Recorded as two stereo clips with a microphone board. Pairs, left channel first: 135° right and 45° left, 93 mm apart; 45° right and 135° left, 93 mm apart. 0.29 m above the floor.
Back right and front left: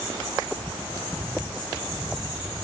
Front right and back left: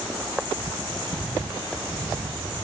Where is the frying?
No frying in this recording.